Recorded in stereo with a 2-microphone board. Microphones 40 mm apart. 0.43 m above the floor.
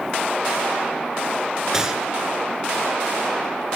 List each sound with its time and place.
1.7 s a gunshot: 15° right (ahead or behind), 3 m